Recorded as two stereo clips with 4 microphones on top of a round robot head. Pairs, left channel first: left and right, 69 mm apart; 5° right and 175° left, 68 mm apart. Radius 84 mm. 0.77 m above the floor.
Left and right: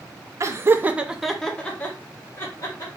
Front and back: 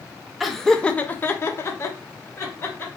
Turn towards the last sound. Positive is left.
turn(degrees=40)